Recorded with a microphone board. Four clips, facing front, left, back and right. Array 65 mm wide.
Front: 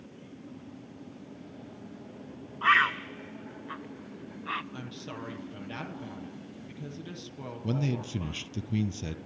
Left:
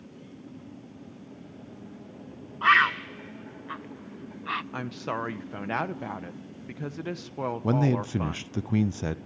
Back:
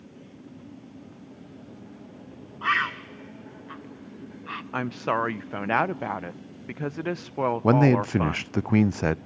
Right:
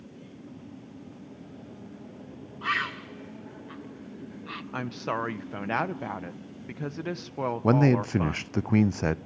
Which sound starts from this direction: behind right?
A man speaking, at 7.6 s.